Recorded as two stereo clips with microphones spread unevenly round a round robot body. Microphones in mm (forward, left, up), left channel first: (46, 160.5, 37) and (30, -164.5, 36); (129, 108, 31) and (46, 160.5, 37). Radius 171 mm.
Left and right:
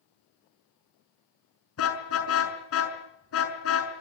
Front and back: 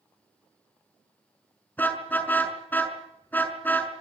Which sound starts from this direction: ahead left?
A car horn, at 1.8 s.